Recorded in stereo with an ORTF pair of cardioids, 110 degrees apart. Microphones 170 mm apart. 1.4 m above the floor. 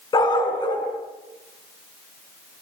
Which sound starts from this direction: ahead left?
A dog barking, at 0.1 s.